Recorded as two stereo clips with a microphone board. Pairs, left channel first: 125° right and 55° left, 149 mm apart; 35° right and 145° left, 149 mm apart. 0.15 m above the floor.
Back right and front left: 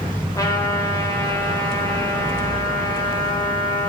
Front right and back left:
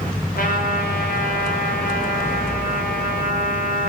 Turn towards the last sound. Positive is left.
turn(degrees=-55)